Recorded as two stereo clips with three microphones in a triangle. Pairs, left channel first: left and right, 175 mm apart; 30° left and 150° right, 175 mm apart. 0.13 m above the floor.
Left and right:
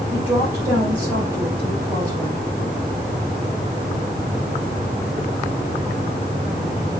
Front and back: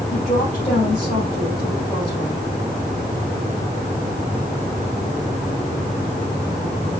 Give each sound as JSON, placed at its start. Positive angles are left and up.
{"t": 0.1, "sound": "a woman speaking", "azimuth_deg": -15, "distance_m": 4.5}